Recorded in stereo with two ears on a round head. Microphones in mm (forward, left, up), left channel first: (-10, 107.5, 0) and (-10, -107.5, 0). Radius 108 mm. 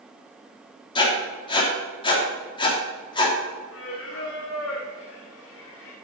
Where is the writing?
20° left (ahead or behind), 2.5 m.